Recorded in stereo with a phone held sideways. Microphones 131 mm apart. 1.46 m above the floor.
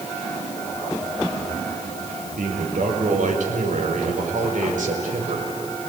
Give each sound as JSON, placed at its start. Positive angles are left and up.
{"t": 2.4, "sound": "a man speaking", "side_deg": -85, "distance_m": 4.5}